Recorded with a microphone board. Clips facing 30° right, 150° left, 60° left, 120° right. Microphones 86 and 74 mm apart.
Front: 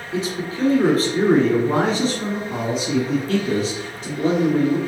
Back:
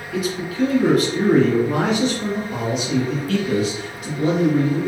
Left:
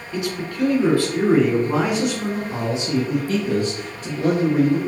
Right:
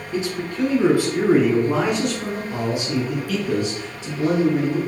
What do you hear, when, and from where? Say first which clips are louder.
0.1 s a man speaking: back 1 dB, right 1 dB; 80° right, 1.7 m; by 4.8 s 30° left, 2.5 m